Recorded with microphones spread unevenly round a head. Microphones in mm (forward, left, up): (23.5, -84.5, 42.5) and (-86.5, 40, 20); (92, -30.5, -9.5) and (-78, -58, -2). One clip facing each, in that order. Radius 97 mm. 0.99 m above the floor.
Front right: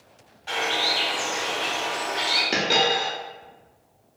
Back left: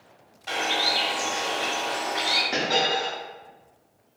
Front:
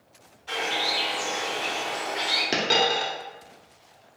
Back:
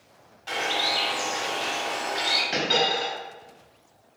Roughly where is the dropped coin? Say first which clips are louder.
Front right 2 dB, front 1 dB; ahead.